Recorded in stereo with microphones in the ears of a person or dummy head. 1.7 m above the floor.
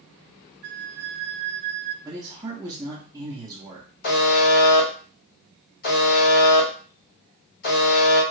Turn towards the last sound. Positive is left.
turn(degrees=50)  # may be behind; listen again after turning